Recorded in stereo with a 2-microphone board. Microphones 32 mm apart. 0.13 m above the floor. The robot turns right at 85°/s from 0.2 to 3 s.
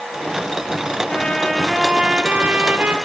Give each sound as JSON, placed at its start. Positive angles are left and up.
{"t": 1.1, "sound": "a trumpet", "azimuth_deg": 130, "distance_m": 2.5}